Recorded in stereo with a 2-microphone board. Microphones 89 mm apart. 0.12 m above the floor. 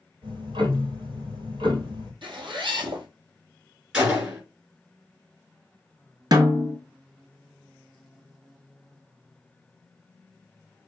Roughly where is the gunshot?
Centre.